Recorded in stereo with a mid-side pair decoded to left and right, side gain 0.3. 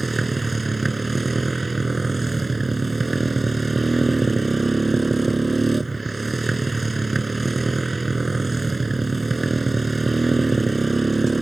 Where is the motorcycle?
35° right.